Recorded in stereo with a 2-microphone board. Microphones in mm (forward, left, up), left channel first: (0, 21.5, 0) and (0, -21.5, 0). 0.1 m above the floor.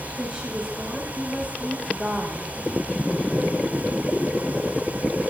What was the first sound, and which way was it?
A woman speaking, 25° right (ahead or behind).